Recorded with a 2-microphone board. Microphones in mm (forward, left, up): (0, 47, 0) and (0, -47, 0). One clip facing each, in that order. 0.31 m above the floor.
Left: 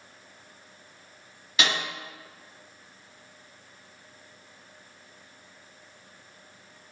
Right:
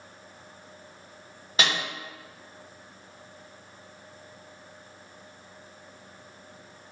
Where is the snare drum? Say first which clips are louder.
Even; 35° right (ahead or behind), 1.6 m.